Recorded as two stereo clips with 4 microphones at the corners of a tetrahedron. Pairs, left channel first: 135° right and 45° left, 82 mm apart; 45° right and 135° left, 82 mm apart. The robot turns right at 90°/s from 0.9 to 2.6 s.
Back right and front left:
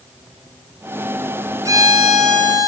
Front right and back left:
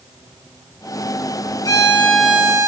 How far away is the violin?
About 2 m.